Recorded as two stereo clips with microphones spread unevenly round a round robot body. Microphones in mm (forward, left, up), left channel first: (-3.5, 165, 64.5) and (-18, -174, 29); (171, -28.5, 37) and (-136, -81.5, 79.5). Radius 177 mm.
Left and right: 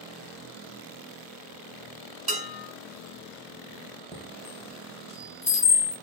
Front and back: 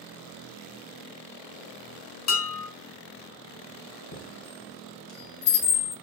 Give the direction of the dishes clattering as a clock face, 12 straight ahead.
1 o'clock.